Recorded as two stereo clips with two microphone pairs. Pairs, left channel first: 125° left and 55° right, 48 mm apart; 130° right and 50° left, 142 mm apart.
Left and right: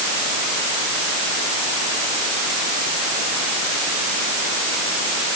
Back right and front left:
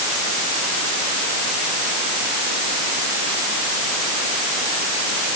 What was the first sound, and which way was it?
Only background noise.